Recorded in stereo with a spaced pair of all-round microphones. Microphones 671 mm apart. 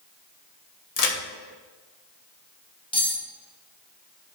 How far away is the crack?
About 0.8 m.